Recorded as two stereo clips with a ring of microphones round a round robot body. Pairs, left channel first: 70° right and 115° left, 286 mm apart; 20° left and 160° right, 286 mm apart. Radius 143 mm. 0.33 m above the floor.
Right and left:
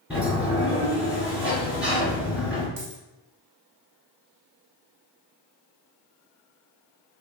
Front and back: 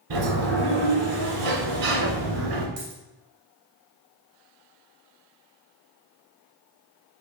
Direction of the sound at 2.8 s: 160° left.